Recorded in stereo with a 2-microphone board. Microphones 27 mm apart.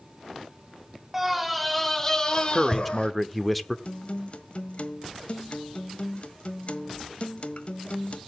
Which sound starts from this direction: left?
A guitar, at 3.9 s.